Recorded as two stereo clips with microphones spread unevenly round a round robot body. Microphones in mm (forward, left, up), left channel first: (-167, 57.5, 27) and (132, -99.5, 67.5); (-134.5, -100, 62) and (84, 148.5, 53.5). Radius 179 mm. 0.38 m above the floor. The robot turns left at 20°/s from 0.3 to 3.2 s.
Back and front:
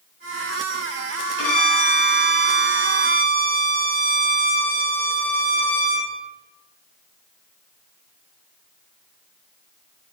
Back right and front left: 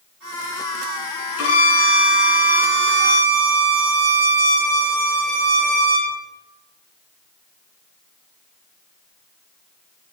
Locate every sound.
1.4 s a violin: 175° right, 3.5 m; by 6.1 s 145° left, 3.5 m